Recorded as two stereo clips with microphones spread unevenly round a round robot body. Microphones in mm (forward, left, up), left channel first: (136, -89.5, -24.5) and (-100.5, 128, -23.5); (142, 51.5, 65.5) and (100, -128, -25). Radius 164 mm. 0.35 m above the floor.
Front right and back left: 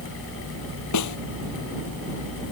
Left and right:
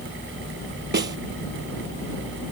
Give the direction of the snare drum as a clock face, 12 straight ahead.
3 o'clock.